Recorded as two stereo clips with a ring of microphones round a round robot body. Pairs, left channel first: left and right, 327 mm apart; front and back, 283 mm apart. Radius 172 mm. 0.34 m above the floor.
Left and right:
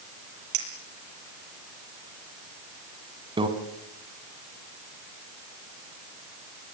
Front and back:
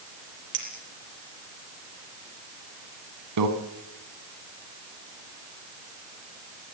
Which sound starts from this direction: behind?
A microwave, at 3.4 s.